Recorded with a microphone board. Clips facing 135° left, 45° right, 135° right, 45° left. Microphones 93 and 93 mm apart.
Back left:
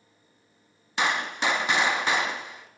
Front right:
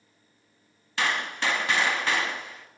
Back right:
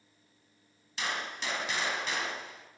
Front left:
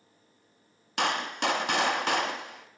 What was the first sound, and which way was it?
A gunshot, 65° left.